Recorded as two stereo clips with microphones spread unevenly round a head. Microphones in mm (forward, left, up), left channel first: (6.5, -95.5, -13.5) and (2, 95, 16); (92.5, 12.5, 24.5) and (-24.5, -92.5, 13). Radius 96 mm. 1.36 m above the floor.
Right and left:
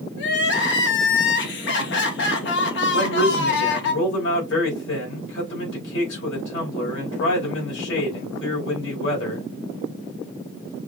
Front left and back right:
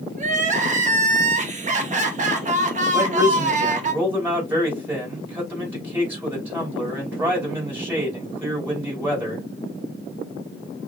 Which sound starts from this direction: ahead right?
A man speaking, at 2.9 s.